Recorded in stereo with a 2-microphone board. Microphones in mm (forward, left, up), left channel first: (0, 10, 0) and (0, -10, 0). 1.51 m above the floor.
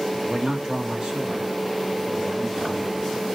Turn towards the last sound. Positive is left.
turn(degrees=-40)  # may be behind; listen again after turning